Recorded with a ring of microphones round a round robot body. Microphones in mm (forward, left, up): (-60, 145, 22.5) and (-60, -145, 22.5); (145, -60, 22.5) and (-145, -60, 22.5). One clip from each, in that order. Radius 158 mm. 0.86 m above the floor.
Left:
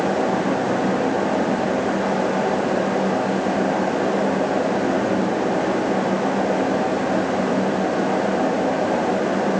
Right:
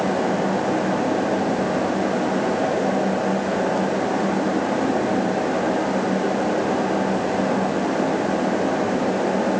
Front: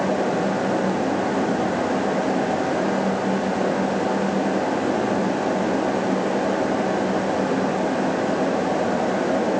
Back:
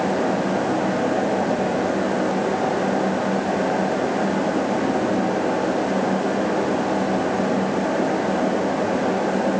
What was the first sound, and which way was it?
Only background noise.